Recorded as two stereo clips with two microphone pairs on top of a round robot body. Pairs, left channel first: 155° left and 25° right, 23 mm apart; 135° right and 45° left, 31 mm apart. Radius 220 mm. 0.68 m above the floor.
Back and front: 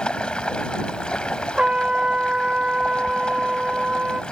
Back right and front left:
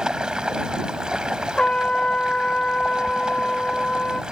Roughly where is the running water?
Left.